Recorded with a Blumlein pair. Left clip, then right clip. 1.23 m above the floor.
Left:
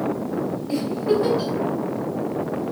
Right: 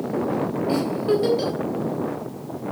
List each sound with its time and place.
0.7 s a giggle: 20° right, 3.5 m